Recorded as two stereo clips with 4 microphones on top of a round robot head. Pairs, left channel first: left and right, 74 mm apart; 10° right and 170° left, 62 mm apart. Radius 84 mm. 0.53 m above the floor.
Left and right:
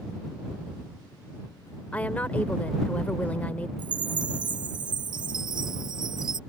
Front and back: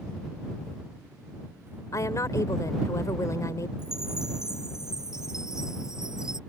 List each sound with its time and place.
1.9 s a woman speaking: 20° left
3.8 s a chime: 110° right